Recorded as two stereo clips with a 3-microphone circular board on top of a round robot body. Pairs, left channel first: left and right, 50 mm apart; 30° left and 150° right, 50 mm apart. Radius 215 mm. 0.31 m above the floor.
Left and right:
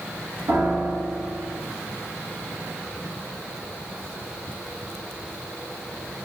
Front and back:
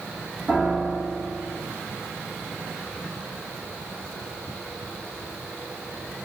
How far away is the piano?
About 2.0 m.